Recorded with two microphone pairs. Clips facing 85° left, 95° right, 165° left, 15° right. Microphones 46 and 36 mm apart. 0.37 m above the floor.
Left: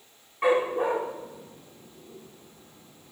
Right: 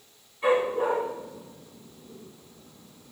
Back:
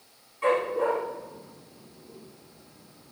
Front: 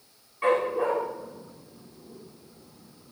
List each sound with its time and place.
0.4 s a dog barking: 50° left, 7.5 m